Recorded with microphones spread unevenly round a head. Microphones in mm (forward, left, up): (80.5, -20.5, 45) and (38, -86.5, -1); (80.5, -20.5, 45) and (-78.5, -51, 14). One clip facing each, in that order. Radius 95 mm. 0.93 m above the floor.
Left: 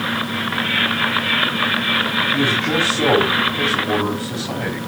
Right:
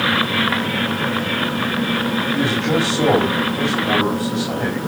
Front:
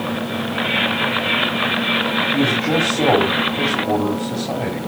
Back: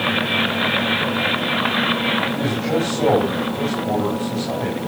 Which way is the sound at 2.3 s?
60° right.